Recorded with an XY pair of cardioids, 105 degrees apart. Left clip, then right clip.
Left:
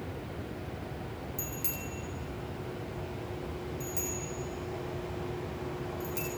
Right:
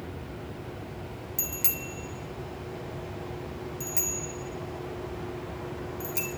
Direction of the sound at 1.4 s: 55° right.